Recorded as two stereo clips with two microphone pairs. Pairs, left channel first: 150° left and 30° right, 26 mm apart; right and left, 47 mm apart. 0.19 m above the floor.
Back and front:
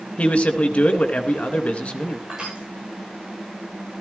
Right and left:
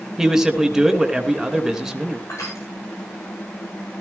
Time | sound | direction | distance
0.2 | a man speaking | 170° left | 2.5 m
2.3 | crushing | 90° right | 9 m